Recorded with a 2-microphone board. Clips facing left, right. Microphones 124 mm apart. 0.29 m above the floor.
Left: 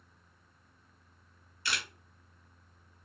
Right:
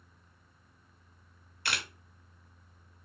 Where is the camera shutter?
60° right (ahead or behind), 0.9 m.